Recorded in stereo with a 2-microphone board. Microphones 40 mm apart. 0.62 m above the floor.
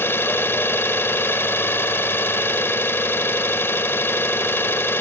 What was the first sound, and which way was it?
An engine running, 75° left (ahead or behind).